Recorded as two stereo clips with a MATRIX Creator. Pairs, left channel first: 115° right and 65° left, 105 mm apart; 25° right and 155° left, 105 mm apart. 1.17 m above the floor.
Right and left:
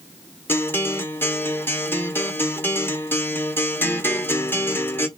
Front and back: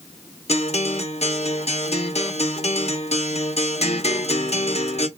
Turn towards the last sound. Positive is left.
turn(degrees=-40)